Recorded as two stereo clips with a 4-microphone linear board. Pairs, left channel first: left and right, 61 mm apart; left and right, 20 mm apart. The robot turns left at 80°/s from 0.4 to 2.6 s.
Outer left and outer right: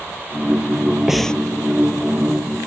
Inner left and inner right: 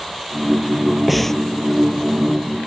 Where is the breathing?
5° right (ahead or behind); by 1.4 s 20° left (ahead or behind).